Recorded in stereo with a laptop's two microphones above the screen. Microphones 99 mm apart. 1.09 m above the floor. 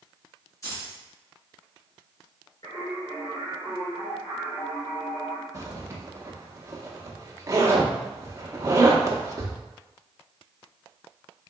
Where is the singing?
45° left (ahead or behind), 1.3 m.